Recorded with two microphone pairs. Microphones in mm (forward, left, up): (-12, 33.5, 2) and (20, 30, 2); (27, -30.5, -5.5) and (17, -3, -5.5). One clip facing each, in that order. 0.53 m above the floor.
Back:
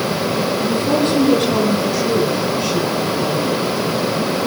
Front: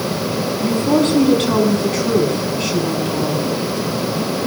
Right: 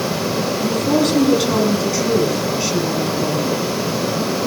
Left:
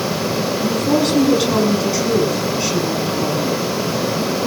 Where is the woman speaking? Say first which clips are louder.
Front 4 dB, even; 25° left, 6 m.